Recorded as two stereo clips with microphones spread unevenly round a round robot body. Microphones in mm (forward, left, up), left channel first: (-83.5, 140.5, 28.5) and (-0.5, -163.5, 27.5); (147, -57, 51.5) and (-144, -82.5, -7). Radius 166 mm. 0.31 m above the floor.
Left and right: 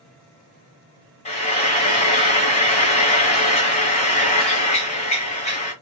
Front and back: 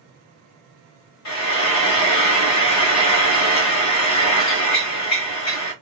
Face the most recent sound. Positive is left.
turn(degrees=40)